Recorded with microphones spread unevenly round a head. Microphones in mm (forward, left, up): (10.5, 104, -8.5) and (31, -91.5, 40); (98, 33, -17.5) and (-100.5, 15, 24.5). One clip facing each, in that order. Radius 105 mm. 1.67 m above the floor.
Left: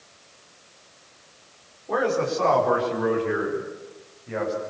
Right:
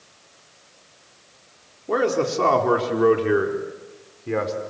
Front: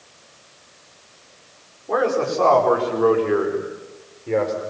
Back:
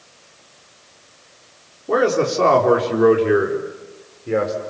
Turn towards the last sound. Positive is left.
turn(degrees=-90)